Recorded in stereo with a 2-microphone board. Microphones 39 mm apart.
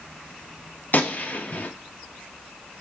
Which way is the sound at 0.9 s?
55° left (ahead or behind).